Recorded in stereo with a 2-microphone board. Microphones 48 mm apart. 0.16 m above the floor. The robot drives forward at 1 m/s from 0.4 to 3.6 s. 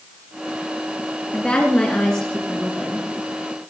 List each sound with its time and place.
1.3 s a woman speaking: 25° left (ahead or behind), 2 m; by 3.1 s 15° left (ahead or behind), 3.5 m